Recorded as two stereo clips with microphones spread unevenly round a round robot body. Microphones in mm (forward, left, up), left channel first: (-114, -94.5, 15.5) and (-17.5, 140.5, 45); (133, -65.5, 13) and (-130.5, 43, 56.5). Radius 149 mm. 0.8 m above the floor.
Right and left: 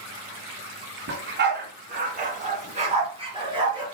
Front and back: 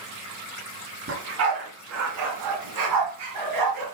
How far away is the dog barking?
About 3 m.